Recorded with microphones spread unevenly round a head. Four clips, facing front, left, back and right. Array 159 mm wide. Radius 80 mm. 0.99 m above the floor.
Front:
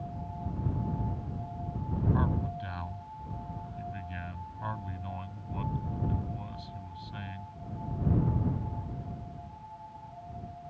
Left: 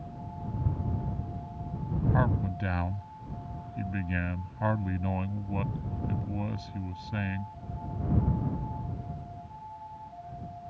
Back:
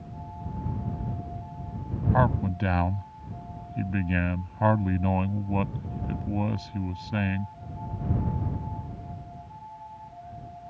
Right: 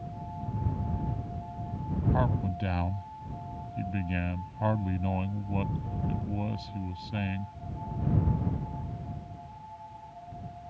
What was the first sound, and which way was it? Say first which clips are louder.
A man speaking: left 1 dB, back 10 dB; 175° right.